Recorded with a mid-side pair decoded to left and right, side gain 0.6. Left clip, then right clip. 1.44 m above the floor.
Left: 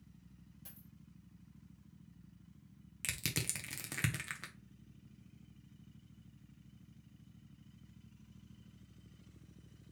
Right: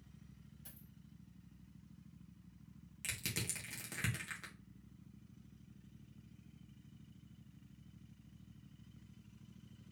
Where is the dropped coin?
15° left, 2 m.